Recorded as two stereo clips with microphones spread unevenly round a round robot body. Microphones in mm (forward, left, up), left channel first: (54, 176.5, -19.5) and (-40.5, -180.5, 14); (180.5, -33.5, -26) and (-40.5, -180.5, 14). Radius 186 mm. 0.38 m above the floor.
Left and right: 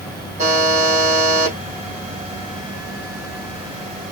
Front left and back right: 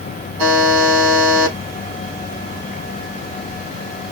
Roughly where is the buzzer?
Behind.